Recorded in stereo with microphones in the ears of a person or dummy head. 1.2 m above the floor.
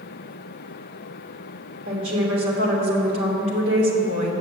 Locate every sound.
1.9 s a woman speaking: 70° right (ahead or behind), 3 m